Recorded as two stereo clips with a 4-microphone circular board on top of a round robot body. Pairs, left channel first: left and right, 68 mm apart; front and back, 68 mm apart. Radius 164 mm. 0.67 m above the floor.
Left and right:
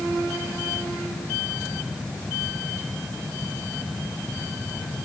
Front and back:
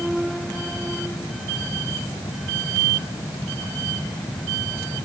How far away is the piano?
No piano in this recording.